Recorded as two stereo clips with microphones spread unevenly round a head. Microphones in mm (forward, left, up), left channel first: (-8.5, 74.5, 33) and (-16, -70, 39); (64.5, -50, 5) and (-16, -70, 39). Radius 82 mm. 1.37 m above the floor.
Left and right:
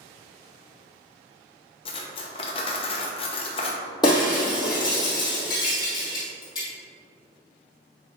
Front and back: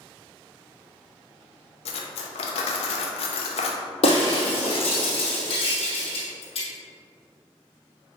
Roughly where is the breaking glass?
Ahead left.